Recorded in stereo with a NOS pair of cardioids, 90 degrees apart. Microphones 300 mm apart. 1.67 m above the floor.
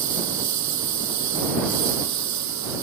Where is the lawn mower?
70° right.